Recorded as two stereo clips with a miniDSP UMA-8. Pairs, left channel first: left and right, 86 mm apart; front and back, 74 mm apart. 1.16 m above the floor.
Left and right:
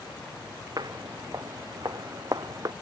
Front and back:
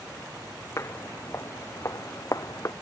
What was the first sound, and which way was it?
Footsteps, 50° right.